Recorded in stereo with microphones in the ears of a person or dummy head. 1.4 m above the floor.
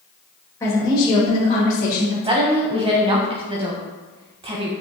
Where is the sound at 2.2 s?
25° right (ahead or behind), 0.8 m.